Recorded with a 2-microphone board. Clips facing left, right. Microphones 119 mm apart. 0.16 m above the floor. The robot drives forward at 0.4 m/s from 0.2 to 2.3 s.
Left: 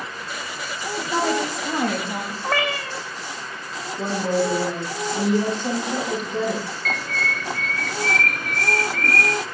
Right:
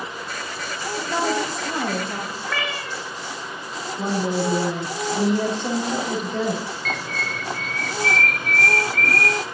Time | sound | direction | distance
1.0 | a woman speaking | 5° right (ahead or behind) | 3 m
2.4 | a cat meowing | 40° left (ahead or behind) | 2 m
4.0 | a woman speaking | 40° right (ahead or behind) | 7 m
6.8 | a bird | centre (ahead or behind) | 1.3 m